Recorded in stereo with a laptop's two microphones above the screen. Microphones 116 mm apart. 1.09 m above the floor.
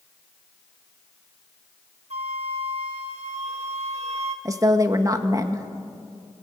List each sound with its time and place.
2.1 s a flute: 60° right (ahead or behind), 1.9 m
4.5 s a woman speaking: 30° right (ahead or behind), 1.7 m